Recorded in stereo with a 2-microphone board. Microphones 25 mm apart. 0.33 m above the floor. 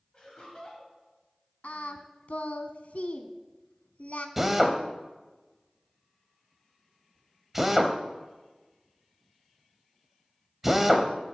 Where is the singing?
75° left (ahead or behind), 0.7 m.